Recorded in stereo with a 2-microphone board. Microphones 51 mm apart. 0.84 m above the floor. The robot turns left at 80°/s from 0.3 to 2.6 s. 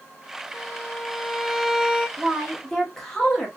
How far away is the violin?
About 1.0 m.